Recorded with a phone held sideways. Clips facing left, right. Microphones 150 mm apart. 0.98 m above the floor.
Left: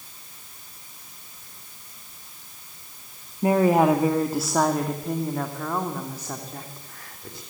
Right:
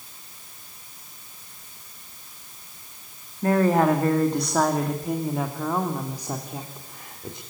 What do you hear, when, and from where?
3.4 s a woman speaking: 15° left (ahead or behind), 2 m; by 7.4 s 20° right (ahead or behind), 3.5 m